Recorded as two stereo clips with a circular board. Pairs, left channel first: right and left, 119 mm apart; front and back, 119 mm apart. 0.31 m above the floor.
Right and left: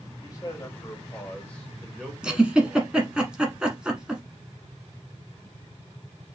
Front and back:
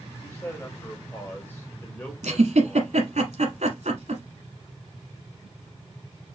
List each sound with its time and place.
0.2 s a man speaking: 55° right, 1.8 m; by 3.0 s 70° left, 1.5 m
2.2 s a giggle: 170° left, 1.2 m